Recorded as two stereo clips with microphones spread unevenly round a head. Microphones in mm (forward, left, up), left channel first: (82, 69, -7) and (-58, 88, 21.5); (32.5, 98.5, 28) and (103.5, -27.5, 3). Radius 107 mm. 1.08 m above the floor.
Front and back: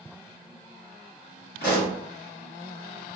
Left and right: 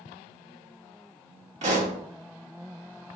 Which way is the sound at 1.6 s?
20° right.